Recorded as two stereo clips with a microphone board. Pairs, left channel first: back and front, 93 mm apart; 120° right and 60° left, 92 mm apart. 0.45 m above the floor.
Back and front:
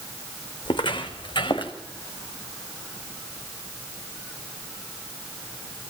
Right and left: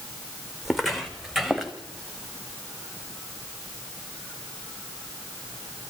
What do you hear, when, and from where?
0.7 s footsteps: 150° left, 2 m; by 1.7 s 145° left, 3 m